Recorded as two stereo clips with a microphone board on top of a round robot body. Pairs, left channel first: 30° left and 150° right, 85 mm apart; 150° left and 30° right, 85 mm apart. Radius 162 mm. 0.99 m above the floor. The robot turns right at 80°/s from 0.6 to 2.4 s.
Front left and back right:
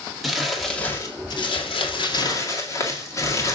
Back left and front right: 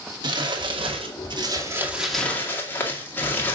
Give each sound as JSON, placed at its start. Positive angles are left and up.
{"t": 0.2, "sound": "crumpling", "azimuth_deg": -65, "distance_m": 2.0}